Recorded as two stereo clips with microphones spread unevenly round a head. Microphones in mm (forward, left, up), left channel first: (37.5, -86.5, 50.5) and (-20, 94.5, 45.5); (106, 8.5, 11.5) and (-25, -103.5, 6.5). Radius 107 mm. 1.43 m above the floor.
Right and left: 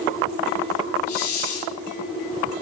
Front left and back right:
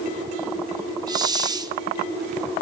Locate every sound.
1.1 s a hiss: 70° right, 0.9 m